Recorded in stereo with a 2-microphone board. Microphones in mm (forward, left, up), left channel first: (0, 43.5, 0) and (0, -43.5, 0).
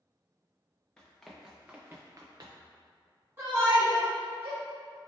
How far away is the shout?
About 1.2 m.